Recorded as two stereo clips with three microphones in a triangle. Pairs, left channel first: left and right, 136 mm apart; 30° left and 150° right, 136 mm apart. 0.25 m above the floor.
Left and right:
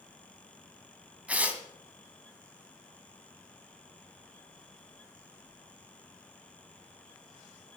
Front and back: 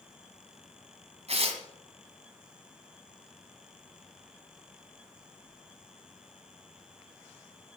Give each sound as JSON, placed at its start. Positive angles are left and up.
{"t": 1.3, "sound": "tearing paper", "azimuth_deg": -170, "distance_m": 1.4}